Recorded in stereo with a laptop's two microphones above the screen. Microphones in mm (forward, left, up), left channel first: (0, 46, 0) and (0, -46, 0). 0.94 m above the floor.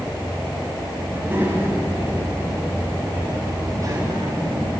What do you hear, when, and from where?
1.1 s a child speaking: 25° right (ahead or behind), 5.5 m; by 4.7 s 45° right (ahead or behind), 5 m